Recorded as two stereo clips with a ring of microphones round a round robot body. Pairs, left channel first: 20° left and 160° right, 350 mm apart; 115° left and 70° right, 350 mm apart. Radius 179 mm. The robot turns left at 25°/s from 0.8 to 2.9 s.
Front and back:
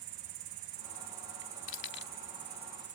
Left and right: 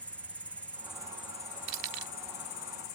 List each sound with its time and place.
0.0 s an insect: 160° right; by 3.0 s 145° left
1.7 s keys jangling: 35° right; by 2.1 s 45° right